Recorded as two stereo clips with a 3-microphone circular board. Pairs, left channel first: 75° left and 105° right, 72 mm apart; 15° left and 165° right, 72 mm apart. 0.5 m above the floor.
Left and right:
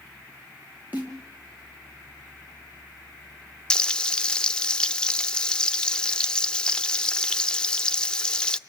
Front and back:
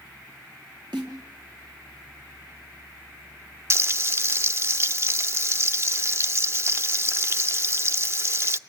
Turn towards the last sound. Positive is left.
turn(degrees=150)